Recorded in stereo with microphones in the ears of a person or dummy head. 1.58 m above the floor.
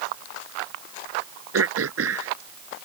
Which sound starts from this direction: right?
Throat clearing, at 1.5 s.